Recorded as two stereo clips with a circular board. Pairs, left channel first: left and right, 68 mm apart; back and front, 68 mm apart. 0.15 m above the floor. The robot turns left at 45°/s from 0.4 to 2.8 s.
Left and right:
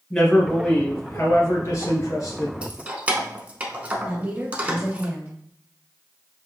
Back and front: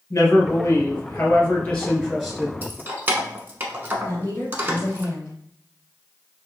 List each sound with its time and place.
0.1 s a man speaking: 175° left, 1.8 m; by 2.5 s 80° left, 1.8 m
2.6 s keys jangling: 30° right, 0.9 m; by 5.0 s 40° right, 0.9 m
4.0 s a woman speaking: 145° right, 1.8 m